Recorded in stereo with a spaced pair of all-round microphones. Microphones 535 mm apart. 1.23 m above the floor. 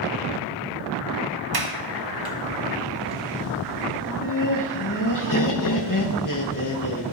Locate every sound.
1.5 s a sliding door: 45° right (ahead or behind), 0.9 m
4.0 s laughter: 35° left (ahead or behind), 1.3 m